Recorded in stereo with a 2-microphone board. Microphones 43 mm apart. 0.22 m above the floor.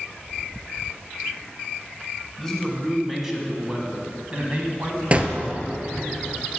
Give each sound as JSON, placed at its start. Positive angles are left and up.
{"t": 2.4, "sound": "a man speaking", "side_deg": 5, "distance_m": 1.6}
{"t": 5.1, "sound": "a gunshot", "side_deg": -30, "distance_m": 0.6}